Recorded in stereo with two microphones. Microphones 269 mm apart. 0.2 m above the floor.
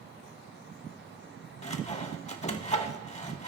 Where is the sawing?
25° left (ahead or behind), 0.6 m.